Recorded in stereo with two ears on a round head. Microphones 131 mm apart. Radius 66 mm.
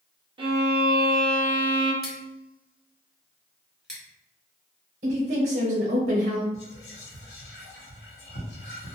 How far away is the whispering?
About 1.2 m.